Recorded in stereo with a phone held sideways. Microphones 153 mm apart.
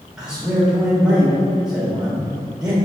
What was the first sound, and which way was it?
A man speaking, 5° right (ahead or behind).